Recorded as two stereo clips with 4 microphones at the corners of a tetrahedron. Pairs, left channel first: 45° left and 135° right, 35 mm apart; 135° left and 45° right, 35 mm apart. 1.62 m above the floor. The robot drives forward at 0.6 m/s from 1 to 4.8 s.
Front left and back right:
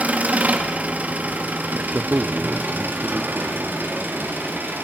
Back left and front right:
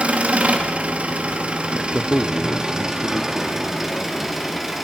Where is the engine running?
95° right, 2.5 m; by 4.8 s 135° right, 3.5 m.